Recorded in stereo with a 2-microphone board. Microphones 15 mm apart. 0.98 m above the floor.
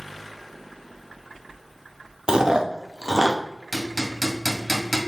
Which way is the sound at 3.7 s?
Centre (ahead or behind).